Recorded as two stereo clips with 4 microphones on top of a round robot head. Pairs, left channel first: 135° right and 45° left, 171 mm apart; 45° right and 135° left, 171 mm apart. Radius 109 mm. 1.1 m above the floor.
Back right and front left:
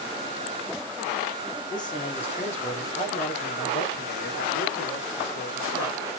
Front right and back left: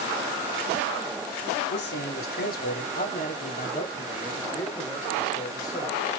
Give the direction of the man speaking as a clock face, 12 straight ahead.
2 o'clock.